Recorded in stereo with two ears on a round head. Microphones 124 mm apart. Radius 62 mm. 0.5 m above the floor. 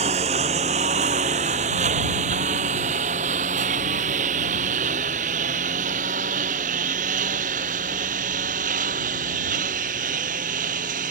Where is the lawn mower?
45° right (ahead or behind); by 11.1 s 60° right (ahead or behind).